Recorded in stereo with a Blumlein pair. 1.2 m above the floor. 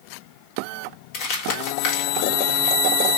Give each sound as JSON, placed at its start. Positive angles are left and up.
{"t": 1.1, "sound": "crumpling", "azimuth_deg": 45, "distance_m": 1.9}